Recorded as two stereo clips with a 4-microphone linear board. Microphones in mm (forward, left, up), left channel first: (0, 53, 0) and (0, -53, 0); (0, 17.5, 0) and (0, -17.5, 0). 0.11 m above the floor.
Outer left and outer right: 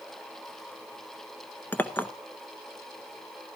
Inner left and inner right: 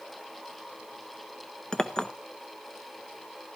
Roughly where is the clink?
Left.